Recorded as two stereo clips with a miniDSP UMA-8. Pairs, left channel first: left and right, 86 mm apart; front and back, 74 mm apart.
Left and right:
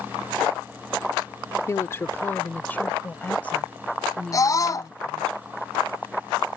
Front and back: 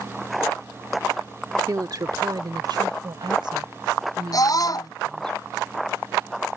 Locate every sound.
1.7 s a woman speaking: 145° left; by 5.3 s 170° left
4.3 s a scream: 40° left